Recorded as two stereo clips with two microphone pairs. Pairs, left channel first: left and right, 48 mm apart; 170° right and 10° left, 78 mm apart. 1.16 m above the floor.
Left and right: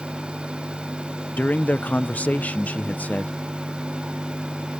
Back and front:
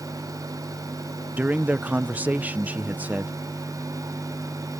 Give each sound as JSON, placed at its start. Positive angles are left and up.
{"t": 1.4, "sound": "a man speaking", "azimuth_deg": 70}